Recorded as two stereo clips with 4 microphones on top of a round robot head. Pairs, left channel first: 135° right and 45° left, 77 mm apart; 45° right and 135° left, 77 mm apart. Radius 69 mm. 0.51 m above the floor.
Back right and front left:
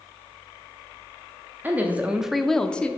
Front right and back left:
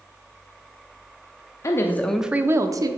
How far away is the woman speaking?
About 0.9 m.